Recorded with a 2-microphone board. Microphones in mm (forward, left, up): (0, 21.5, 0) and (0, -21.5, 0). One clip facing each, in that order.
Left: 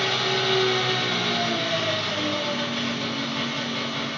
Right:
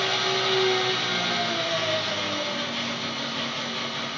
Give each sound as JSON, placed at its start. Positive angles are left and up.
{"t": 0.0, "sound": "an engine running", "side_deg": 40, "distance_m": 1.7}